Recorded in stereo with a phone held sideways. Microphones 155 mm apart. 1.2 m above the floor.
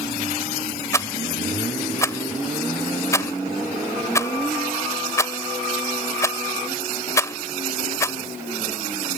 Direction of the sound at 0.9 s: 20° left (ahead or behind).